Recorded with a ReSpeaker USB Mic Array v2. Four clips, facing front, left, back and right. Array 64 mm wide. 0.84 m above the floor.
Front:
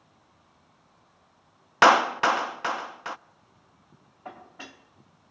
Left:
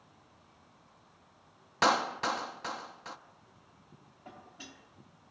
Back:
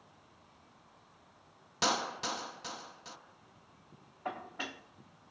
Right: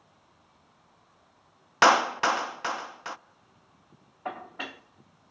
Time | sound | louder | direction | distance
1.8 | a clap | right 7 dB, front 16 dB | 30° right | 0.6 m
4.2 | dishes clattering | right 14 dB, back 3 dB | 100° right | 0.8 m